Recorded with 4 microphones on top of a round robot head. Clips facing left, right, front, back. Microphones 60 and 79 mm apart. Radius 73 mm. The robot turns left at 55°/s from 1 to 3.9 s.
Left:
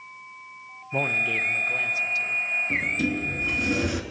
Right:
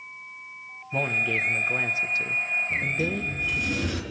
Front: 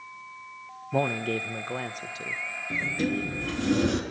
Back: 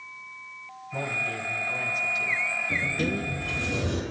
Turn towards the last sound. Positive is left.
turn(degrees=15)